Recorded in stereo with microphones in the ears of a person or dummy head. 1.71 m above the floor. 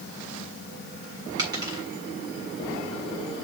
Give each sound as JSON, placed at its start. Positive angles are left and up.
{"t": 1.4, "sound": "a dropped coin", "side_deg": -25, "distance_m": 3.5}